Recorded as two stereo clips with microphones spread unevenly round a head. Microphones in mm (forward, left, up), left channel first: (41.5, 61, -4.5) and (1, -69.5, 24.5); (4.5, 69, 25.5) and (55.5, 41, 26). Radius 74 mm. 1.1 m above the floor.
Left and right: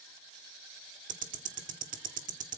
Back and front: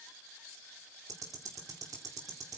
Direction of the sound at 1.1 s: 75° right.